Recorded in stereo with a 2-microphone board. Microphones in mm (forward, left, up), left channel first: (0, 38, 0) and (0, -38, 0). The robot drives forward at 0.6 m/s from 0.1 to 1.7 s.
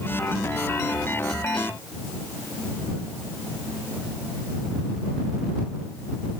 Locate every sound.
Only background noise.